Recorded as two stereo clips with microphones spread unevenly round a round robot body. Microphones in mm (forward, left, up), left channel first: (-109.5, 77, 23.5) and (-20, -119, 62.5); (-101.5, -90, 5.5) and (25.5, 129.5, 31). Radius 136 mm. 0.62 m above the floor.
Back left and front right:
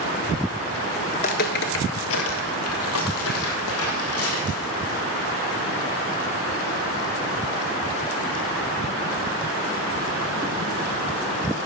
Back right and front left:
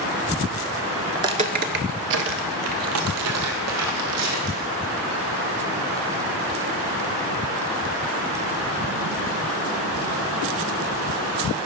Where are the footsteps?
85° left, 0.5 m; by 4.7 s 70° left, 2.5 m.